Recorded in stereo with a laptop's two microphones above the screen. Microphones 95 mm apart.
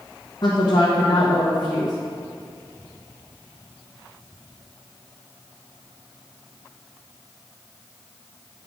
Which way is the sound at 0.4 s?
40° left (ahead or behind).